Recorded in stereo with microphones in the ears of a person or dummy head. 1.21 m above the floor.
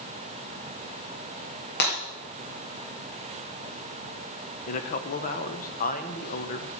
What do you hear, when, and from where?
1.8 s breaking glass: 60° left (ahead or behind), 4 m
4.7 s a man speaking: 40° left (ahead or behind), 1.6 m